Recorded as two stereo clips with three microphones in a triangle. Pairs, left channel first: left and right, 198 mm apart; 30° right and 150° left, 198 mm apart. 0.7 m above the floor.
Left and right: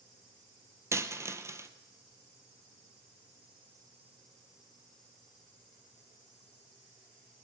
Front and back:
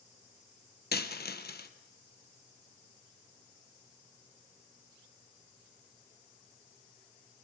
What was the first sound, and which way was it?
A dropped coin, 15° right.